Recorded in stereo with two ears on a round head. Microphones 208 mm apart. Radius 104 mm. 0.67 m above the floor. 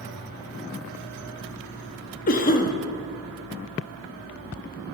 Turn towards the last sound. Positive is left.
turn(degrees=40)  # may be behind; listen again after turning